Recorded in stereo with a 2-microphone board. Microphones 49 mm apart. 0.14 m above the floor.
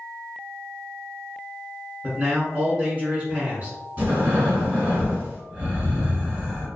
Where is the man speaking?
25° right (ahead or behind), 1.4 m.